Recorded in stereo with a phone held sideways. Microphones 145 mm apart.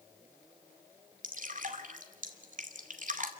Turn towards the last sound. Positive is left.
turn(degrees=-65)  # may be behind; listen again after turning